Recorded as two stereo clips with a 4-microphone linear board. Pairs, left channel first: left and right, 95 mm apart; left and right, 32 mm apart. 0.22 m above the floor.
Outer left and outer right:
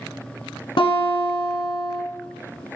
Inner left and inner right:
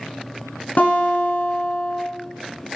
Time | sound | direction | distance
0.8 | a guitar | 60° left (ahead or behind) | 1.0 m